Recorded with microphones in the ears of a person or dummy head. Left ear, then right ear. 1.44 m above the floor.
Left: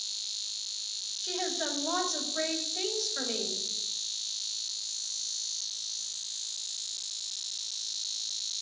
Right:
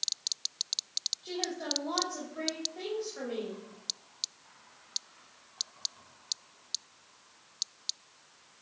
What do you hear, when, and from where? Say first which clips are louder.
1.2 s a woman speaking: left 3 dB; 80° left, 3 m